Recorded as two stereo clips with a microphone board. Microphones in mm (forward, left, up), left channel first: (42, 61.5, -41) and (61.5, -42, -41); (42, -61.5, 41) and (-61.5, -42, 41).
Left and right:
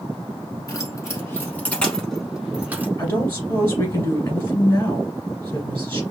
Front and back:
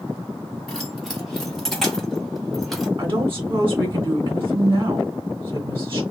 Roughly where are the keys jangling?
Left.